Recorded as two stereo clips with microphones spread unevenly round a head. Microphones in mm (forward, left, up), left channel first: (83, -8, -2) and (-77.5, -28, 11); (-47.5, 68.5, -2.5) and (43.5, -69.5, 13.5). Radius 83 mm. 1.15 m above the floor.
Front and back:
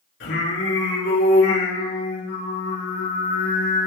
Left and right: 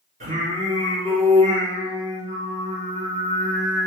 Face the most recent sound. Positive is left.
turn(degrees=-10)